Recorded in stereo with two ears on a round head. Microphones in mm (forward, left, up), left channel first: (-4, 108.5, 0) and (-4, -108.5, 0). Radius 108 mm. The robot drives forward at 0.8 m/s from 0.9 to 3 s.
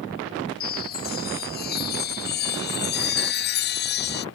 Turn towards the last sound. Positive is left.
turn(degrees=45)  # may be behind; listen again after turning